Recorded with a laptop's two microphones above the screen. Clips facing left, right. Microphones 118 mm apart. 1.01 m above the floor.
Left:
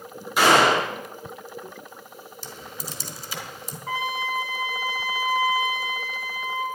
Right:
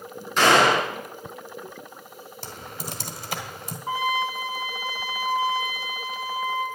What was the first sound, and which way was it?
A gunshot, 10° left (ahead or behind).